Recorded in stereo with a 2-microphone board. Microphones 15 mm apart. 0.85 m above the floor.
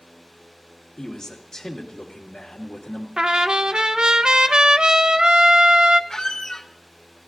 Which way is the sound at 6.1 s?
70° left (ahead or behind).